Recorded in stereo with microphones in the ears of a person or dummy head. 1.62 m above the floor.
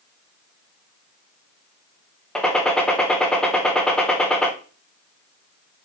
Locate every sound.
2.4 s a gunshot: 5° left (ahead or behind), 1.2 m